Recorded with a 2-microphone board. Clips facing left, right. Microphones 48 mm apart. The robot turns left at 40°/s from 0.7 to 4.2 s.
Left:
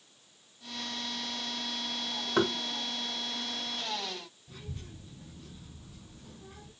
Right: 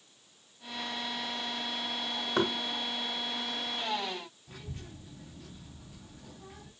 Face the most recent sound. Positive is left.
turn(degrees=-75)  # may be behind; listen again after turning